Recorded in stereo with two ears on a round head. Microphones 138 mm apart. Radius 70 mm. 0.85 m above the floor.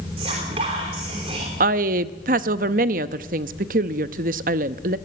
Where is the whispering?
35° right (ahead or behind), 3 m.